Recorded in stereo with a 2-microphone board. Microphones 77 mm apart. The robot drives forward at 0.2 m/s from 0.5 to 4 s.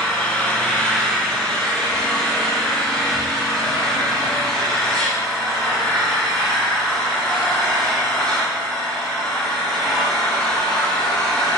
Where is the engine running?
15° left (ahead or behind), 1.6 m; by 11.6 s 10° left (ahead or behind), 2.5 m.